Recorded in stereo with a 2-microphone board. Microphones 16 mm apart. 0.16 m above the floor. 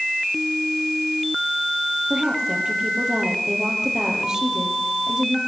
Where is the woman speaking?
35° right (ahead or behind), 4.5 m.